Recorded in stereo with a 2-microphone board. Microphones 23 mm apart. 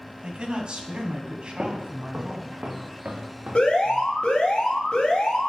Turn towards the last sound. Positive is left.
turn(degrees=55)  # may be behind; listen again after turning